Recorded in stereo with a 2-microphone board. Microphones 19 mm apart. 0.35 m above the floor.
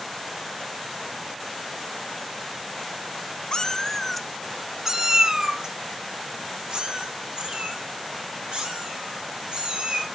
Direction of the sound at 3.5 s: 45° left (ahead or behind).